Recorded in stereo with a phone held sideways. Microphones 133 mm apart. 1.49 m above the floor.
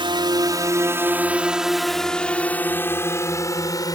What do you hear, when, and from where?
0.0 s a drone: 40° right (ahead or behind); by 4.0 s 30° left (ahead or behind)